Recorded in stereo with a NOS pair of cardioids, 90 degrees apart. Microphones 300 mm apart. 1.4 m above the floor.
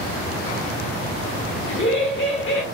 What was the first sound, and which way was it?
Laughter, 40° left.